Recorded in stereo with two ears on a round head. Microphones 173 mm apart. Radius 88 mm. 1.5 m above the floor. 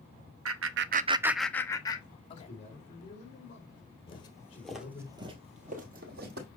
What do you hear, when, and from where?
0.5 s laughter: 80° right, 0.9 m; by 2.5 s 30° left (ahead or behind), 2 m
2.3 s a man speaking: 40° left (ahead or behind), 5 m
4.1 s footsteps: 30° left (ahead or behind), 1.7 m; by 6.5 s 60° right (ahead or behind), 2.5 m